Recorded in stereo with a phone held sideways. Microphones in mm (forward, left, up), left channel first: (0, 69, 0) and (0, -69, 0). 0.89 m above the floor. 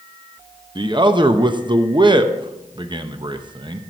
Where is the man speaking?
35° right (ahead or behind), 0.6 m.